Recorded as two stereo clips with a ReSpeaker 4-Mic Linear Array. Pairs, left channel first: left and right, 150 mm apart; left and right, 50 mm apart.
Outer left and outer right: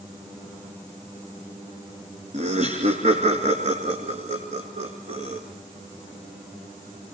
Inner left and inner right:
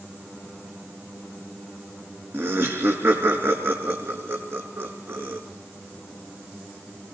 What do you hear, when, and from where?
2.3 s laughter: 55° right (ahead or behind), 2 m